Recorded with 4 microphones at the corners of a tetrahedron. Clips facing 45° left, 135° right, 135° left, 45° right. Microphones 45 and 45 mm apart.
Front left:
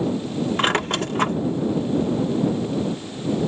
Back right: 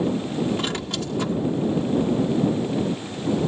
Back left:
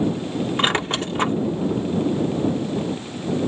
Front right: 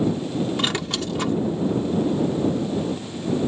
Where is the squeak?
80° left.